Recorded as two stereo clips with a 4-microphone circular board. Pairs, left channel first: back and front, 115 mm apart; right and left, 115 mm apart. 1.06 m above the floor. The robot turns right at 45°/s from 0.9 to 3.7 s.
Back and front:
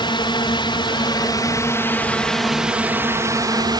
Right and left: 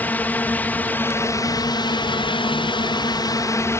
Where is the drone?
160° right; by 3.8 s 35° right.